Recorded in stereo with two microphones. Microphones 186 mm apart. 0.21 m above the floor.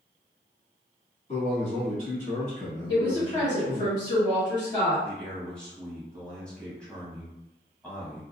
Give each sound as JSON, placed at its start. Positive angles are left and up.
{"t": 1.3, "sound": "a man speaking", "side_deg": 40, "distance_m": 1.4}
{"t": 2.9, "sound": "a woman speaking", "side_deg": 20, "distance_m": 1.3}
{"t": 5.0, "sound": "a man speaking", "side_deg": 5, "distance_m": 1.2}